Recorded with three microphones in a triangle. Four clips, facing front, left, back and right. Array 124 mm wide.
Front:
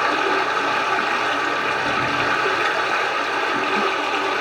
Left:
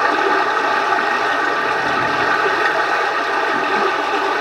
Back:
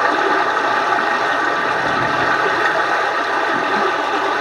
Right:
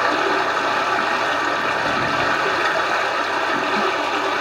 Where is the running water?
165° left, 1.0 m.